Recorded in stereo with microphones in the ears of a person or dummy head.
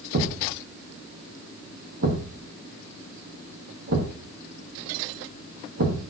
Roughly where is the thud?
Right.